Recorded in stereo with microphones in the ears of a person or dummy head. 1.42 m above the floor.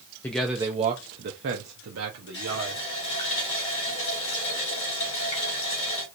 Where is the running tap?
35° left (ahead or behind), 2.5 m.